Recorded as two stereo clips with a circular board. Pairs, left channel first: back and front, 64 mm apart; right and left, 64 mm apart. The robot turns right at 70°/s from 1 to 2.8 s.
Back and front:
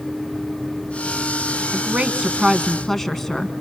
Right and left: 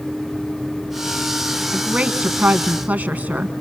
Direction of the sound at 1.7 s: 25° left.